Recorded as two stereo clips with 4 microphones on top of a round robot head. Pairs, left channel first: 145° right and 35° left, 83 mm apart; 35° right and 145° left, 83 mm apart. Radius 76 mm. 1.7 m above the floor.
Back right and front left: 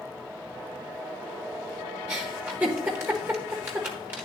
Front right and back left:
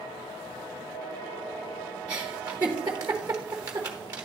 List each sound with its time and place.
2.1 s a giggle: 95° left, 1.0 m